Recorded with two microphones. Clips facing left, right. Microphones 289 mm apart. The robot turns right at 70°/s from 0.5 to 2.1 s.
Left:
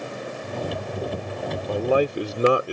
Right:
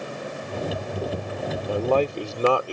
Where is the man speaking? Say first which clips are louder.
Left 1 dB; 5° right (ahead or behind); by 2.7 s 20° left (ahead or behind).